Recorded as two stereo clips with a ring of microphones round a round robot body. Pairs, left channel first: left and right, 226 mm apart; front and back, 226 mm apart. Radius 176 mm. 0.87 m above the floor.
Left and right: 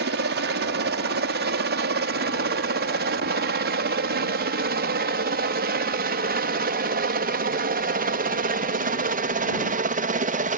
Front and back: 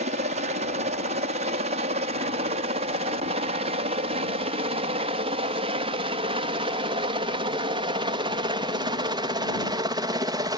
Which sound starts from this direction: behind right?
A helicopter, at 0.0 s.